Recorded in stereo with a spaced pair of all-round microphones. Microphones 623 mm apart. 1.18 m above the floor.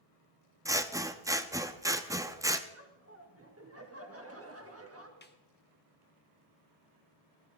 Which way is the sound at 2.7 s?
20° right (ahead or behind).